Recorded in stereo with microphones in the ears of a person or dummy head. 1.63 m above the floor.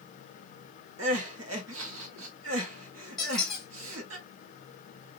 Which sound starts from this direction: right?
Crying, at 1.0 s.